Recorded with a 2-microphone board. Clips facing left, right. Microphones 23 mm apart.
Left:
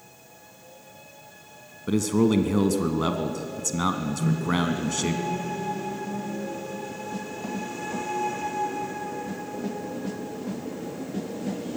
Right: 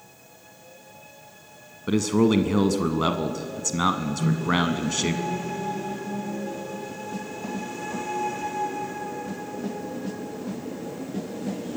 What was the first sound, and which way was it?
A man speaking, 20° right (ahead or behind).